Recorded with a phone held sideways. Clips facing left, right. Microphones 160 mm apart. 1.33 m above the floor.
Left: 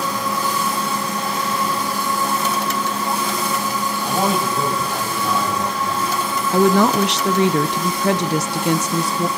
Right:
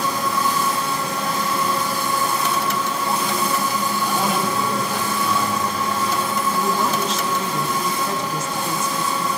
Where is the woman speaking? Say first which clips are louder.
Left 11 dB; 80° left, 0.6 m.